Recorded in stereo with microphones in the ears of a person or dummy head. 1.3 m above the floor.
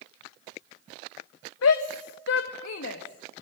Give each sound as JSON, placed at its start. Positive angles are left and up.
{"t": 1.6, "sound": "a shout", "side_deg": 80, "distance_m": 1.1}